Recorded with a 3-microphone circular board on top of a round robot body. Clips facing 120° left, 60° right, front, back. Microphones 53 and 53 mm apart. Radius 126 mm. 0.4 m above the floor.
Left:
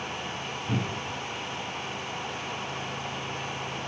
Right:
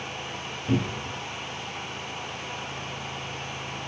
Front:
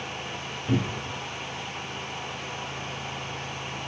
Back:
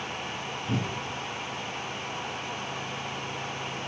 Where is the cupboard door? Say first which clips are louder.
Right 5 dB, front 5 dB; 60° right, 1.3 m.